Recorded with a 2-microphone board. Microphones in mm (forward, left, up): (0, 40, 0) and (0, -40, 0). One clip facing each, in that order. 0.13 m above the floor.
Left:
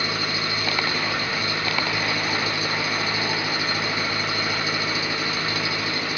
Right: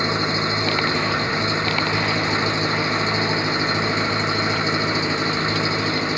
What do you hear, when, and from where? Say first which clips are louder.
0.0 s an engine running: right 5 dB; 20° right (ahead or behind)